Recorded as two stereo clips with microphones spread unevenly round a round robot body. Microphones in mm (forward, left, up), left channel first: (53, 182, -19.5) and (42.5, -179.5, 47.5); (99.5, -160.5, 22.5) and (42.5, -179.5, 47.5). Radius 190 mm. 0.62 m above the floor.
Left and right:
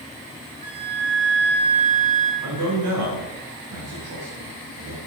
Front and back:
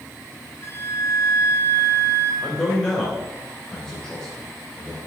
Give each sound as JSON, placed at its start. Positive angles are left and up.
{"t": 0.6, "sound": "a flute", "azimuth_deg": -20, "distance_m": 6.0}
{"t": 2.4, "sound": "a man speaking", "azimuth_deg": -50, "distance_m": 3.0}